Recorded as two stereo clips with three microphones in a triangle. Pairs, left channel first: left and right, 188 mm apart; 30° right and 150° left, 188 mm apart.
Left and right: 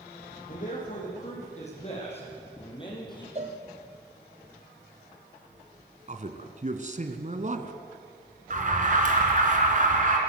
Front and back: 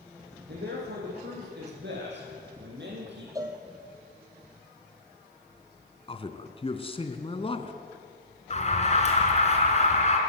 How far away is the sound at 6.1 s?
About 1.7 m.